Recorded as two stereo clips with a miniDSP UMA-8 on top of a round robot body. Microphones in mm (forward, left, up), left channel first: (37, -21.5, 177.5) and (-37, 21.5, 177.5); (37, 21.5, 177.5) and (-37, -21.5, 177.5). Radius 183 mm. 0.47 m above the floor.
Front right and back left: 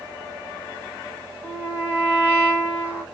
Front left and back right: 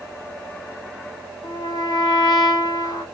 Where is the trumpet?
75° left, 1.9 m.